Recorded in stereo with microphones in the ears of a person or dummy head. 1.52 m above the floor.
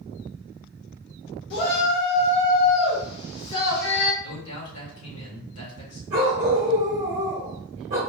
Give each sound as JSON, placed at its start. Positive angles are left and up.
{"t": 1.5, "sound": "a shout", "side_deg": 60, "distance_m": 1.6}
{"t": 4.2, "sound": "a man speaking", "side_deg": 80, "distance_m": 1.9}
{"t": 6.1, "sound": "a dog barking", "side_deg": -20, "distance_m": 0.9}